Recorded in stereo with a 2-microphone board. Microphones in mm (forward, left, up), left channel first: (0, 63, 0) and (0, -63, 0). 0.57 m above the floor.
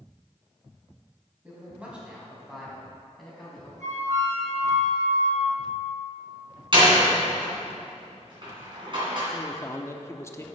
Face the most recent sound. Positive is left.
turn(degrees=20)  # may be behind; listen again after turning